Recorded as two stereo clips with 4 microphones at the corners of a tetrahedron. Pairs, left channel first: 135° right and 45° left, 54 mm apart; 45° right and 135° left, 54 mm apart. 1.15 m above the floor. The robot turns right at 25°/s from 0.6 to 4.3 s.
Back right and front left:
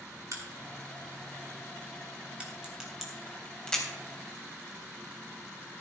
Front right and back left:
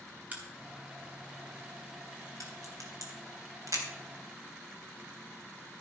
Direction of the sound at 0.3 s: 70° left.